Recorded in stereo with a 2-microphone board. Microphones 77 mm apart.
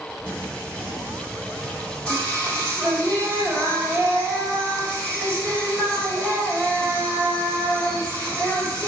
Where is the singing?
20° left (ahead or behind), 3 m.